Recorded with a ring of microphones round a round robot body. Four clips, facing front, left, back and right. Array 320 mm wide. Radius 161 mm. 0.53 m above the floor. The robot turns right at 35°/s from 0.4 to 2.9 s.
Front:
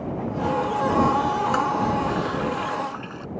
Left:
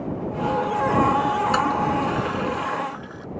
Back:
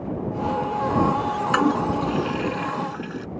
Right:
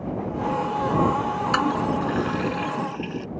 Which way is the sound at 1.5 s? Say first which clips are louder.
Left 2 dB, back 1 dB; 170° right.